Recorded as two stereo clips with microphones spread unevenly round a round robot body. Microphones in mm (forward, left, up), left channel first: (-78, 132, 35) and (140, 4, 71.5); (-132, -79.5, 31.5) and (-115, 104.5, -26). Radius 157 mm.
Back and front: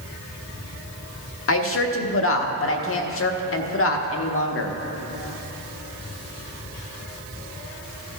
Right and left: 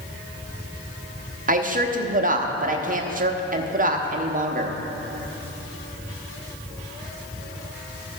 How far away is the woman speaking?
About 1.1 m.